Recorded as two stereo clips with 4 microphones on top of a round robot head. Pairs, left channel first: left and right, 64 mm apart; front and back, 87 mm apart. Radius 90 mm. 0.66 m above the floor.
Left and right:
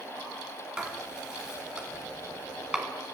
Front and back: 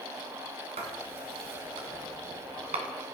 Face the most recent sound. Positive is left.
turn(degrees=-170)